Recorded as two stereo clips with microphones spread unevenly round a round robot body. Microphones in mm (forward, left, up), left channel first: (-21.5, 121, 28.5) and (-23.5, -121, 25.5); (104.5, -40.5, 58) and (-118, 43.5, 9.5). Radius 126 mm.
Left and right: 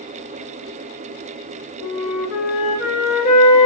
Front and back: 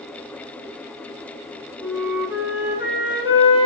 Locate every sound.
1.8 s a flute: 110° left, 1.2 m